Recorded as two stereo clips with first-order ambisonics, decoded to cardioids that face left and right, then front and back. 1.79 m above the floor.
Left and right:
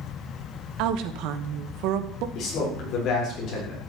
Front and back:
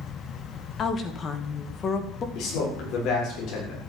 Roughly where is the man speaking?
Ahead left.